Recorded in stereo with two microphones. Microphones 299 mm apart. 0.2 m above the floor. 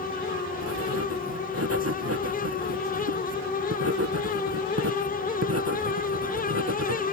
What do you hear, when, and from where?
0.6 s writing: 55° right (ahead or behind)